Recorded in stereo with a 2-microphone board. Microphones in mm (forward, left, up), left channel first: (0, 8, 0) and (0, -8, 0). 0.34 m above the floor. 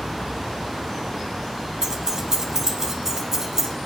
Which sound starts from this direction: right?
Keys jangling, at 1.8 s.